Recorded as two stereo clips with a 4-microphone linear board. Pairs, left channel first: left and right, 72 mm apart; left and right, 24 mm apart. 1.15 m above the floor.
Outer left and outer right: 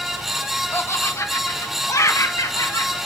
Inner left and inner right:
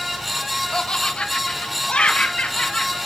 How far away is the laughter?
About 0.9 m.